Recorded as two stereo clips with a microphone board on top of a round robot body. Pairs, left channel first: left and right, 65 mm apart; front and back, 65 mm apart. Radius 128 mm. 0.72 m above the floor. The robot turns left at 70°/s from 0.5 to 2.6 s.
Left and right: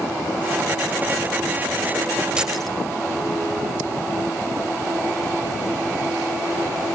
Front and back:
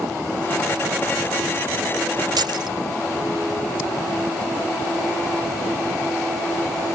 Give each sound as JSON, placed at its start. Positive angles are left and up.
{"t": 2.4, "sound": "keys jangling", "azimuth_deg": -165}